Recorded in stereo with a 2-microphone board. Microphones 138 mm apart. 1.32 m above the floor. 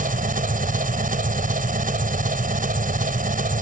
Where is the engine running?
85° right.